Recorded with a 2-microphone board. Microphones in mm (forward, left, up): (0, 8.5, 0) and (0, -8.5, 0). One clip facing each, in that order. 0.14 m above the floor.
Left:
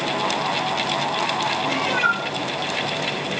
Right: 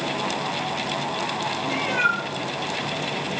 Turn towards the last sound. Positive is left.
turn(degrees=35)  # may be behind; listen again after turning